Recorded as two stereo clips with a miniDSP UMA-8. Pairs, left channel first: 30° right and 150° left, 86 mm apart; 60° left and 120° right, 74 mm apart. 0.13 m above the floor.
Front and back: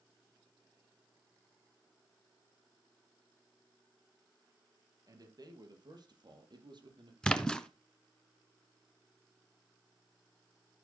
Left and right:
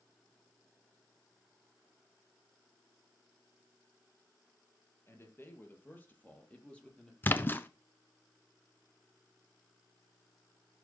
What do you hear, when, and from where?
5.1 s a man speaking: 110° left, 4 m; by 7.1 s 140° left, 4.5 m
7.2 s a splash: 40° left, 1.1 m